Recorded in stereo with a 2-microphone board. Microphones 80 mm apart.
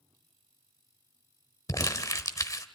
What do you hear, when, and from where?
1.7 s crumpling: 45° left (ahead or behind), 1.1 m